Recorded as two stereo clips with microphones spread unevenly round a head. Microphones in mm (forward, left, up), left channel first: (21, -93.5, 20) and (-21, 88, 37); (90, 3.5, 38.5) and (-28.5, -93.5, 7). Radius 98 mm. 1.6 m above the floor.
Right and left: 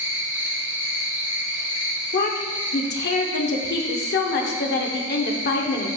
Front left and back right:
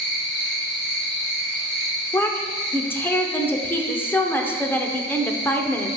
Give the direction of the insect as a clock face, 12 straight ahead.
10 o'clock.